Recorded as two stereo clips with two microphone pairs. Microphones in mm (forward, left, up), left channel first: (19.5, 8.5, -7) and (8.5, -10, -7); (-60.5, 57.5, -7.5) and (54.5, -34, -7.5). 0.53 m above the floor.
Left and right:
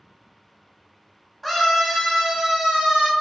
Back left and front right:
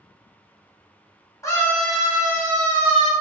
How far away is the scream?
About 1.1 m.